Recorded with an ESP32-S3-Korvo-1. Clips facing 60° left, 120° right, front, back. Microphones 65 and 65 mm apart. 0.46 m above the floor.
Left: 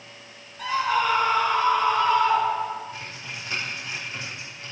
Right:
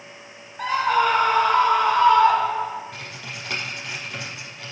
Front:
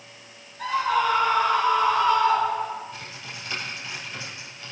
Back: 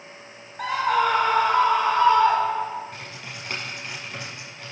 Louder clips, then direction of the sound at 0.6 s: Right 3 dB, back 1 dB; 165° right.